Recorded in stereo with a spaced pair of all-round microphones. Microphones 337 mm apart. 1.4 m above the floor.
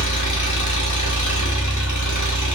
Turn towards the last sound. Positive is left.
turn(degrees=60)  # may be behind; listen again after turning